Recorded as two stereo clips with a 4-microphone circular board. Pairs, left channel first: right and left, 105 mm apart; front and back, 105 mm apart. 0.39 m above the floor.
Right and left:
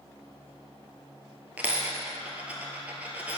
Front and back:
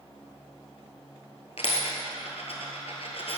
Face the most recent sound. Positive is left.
turn(degrees=15)